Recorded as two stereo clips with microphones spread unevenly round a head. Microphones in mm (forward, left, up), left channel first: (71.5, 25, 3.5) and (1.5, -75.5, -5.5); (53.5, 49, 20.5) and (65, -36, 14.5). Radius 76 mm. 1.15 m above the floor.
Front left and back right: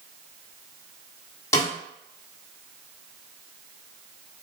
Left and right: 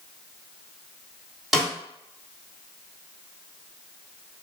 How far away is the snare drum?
About 0.8 m.